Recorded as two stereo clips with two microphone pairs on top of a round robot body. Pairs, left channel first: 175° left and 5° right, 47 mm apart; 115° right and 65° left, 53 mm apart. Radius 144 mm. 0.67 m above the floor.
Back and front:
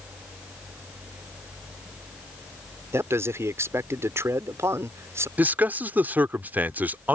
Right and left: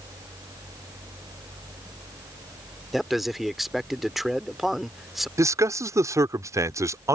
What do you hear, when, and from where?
2.9 s a man speaking: 25° right
5.4 s a man speaking: 45° left